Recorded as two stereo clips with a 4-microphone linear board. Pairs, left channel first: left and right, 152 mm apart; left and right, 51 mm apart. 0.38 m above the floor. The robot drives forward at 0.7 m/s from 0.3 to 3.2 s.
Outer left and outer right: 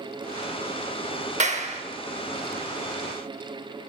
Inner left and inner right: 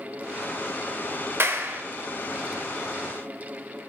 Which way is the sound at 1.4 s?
45° right (ahead or behind).